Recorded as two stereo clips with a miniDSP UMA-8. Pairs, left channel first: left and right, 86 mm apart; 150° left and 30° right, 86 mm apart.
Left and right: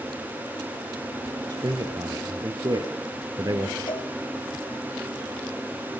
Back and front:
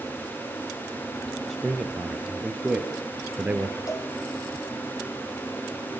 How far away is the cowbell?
About 4 m.